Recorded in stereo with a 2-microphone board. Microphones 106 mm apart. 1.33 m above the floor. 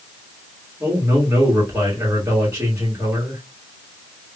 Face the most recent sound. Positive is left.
turn(degrees=-20)  # may be behind; listen again after turning